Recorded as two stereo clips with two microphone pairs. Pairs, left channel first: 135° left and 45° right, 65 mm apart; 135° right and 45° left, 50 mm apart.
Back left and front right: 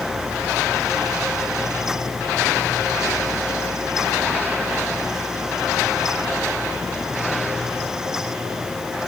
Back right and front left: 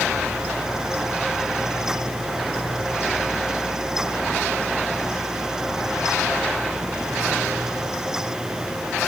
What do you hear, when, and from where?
Only background noise.